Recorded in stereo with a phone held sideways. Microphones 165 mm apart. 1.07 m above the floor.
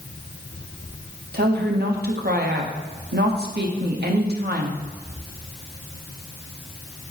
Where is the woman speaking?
75° right (ahead or behind), 1.4 m.